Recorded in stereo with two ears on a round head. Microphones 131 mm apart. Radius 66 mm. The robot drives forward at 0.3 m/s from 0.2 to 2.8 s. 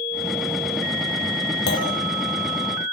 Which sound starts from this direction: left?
A clunk, at 1.7 s.